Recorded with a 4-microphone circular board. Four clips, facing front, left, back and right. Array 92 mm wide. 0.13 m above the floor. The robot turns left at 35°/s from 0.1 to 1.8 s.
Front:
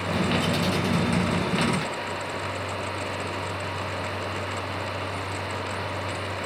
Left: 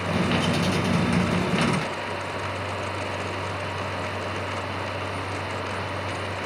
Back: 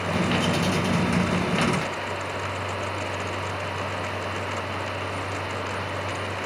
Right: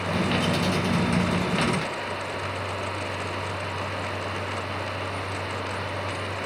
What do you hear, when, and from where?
Only background noise.